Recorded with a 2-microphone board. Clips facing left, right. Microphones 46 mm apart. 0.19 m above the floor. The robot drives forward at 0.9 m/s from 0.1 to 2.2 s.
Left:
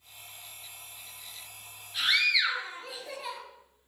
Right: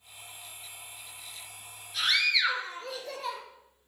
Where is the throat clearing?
No throat clearing in this recording.